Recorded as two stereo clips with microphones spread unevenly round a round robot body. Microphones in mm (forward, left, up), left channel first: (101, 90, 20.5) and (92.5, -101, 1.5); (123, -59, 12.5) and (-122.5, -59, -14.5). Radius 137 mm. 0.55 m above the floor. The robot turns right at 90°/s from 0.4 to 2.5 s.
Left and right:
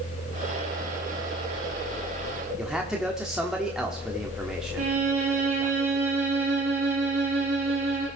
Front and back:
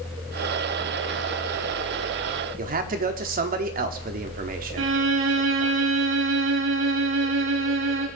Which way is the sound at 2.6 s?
170° right.